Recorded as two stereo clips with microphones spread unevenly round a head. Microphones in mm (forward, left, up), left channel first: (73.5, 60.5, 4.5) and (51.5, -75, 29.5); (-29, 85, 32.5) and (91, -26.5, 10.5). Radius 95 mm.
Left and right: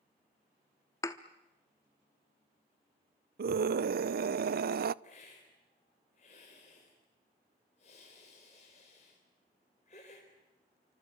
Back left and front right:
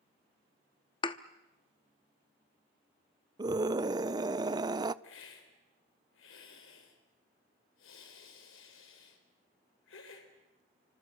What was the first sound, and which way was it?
A thud, 155° left.